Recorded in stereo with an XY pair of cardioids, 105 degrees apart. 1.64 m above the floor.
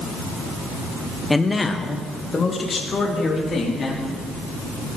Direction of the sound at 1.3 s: 15° left.